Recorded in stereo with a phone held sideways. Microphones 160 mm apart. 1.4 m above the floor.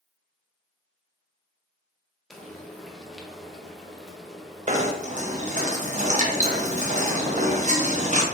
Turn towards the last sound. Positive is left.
turn(degrees=-45)  # may be behind; listen again after turning